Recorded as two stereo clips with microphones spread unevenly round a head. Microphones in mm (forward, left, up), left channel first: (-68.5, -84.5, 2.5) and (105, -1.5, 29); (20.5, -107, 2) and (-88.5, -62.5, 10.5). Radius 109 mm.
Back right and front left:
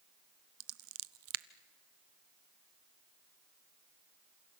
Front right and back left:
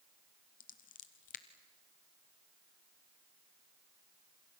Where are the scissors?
20° left, 0.6 m.